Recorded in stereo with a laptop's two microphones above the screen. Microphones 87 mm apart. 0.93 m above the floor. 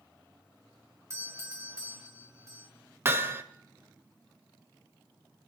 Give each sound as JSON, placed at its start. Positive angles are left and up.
{"t": 1.1, "sound": "a doorbell", "side_deg": -30, "distance_m": 1.3}
{"t": 3.0, "sound": "hammering", "side_deg": -30, "distance_m": 0.7}